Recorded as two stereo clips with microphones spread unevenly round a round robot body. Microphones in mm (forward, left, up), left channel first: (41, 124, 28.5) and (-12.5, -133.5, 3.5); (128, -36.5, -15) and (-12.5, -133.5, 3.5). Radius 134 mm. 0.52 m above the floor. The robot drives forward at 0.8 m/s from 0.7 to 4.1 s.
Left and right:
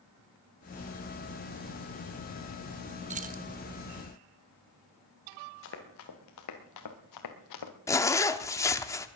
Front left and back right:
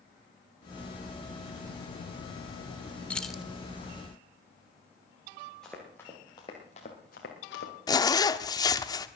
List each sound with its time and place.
3.1 s keys jangling: 45° right, 1.3 m; by 3.4 s 55° right, 1.1 m
5.6 s running footsteps: 125° left, 3.5 m; by 7.7 s 80° left, 3 m
7.9 s a zipper: straight ahead, 0.9 m